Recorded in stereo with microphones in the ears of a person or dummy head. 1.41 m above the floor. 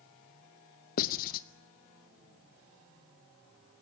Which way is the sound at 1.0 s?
45° left (ahead or behind).